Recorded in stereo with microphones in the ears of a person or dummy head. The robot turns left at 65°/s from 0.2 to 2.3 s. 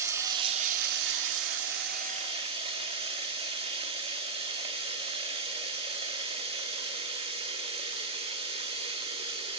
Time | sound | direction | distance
0.0 | running water | 15° right | 1.7 m